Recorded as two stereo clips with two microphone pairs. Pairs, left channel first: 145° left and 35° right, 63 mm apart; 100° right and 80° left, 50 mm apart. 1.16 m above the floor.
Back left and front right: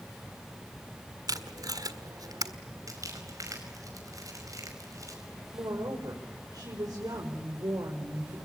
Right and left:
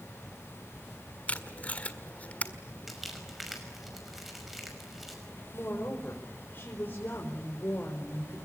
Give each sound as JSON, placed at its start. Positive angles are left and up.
{"t": 1.3, "sound": "tape being pulled", "azimuth_deg": -40, "distance_m": 1.7}
{"t": 2.9, "sound": "crumpling", "azimuth_deg": -5, "distance_m": 5.5}
{"t": 5.5, "sound": "a woman speaking", "azimuth_deg": -50, "distance_m": 5.0}